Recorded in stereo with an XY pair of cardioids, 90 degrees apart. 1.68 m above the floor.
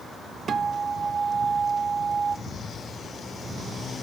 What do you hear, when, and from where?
0.5 s a guitar: 55° right, 1.1 m